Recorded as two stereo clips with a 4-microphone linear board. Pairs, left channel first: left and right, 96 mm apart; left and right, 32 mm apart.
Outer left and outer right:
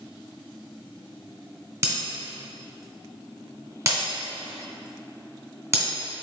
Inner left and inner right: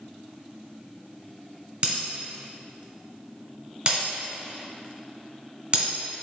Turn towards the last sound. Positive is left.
turn(degrees=-30)  # may be behind; listen again after turning